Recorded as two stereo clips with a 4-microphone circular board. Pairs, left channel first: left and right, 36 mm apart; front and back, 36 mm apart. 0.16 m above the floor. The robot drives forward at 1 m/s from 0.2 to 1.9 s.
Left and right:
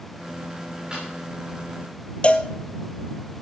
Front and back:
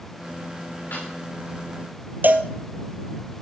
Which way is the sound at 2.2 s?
145° left.